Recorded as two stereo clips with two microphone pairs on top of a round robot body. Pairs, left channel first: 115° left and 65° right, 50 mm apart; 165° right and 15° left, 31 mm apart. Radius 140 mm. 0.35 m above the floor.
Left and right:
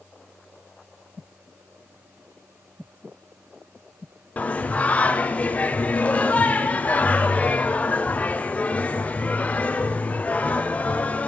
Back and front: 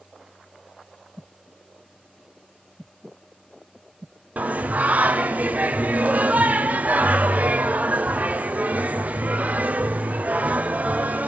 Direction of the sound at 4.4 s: 50° left.